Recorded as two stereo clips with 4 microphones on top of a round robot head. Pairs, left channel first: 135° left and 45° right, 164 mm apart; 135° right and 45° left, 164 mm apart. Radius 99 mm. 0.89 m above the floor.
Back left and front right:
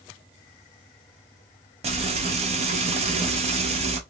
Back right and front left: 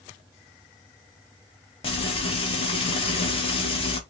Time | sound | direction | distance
1.8 | frying | 85° right | 1.2 m